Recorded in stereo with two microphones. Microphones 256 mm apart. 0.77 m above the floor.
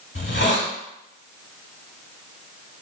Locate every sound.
0.1 s a hiss: 45° left (ahead or behind), 0.7 m